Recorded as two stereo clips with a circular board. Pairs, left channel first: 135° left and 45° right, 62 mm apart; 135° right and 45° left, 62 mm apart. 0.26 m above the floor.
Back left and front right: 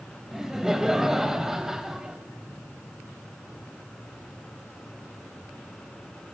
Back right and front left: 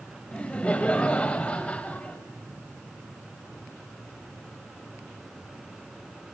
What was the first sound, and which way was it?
Laughter, 110° right.